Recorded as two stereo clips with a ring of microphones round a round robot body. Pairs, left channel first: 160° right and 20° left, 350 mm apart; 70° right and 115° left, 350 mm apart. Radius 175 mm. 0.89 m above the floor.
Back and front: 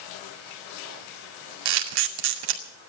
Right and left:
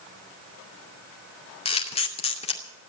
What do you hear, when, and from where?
1.6 s a camera shutter: 5° left, 2.5 m